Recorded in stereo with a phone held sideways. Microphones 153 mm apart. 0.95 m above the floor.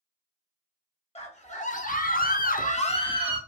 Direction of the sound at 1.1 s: 45° left (ahead or behind).